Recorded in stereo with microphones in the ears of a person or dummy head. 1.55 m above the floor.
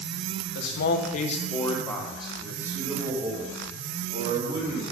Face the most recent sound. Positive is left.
turn(degrees=-30)  # may be behind; listen again after turning